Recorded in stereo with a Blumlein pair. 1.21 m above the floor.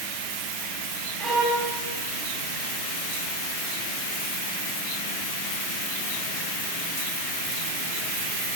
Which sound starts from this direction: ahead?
A violin, at 1.2 s.